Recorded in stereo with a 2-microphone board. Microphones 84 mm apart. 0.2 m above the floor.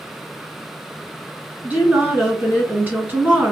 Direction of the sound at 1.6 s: 20° right (ahead or behind).